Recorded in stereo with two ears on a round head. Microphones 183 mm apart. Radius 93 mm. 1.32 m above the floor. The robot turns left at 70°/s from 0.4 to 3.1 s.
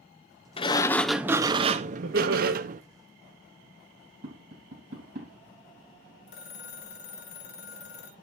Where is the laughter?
55° right, 1.7 m; by 2.5 s 95° right, 1.7 m.